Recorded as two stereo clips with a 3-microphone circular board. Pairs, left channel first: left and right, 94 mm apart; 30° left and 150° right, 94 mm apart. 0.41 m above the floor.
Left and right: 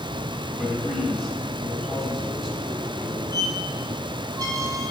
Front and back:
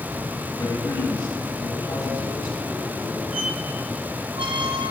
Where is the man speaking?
Straight ahead, 3.5 m.